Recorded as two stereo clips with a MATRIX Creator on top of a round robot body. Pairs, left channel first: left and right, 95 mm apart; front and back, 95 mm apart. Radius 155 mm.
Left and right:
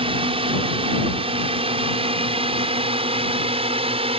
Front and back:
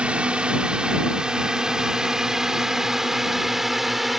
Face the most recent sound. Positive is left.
turn(degrees=-90)